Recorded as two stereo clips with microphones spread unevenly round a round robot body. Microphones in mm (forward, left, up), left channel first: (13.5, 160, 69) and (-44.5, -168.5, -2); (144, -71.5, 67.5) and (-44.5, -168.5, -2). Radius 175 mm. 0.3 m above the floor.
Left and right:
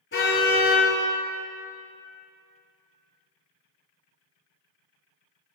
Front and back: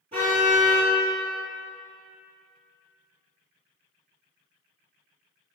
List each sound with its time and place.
0.1 s a car horn: 135° left, 4 m